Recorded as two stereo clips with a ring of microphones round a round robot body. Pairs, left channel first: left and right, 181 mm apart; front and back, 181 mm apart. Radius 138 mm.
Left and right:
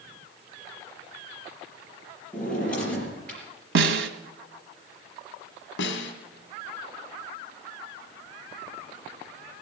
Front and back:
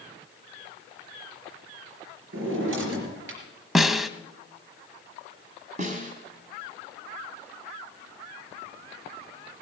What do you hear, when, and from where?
2.3 s a drawer: 175° left, 4 m
3.8 s a snare drum: 90° right, 1.1 m
5.8 s a snare drum: 120° left, 1.9 m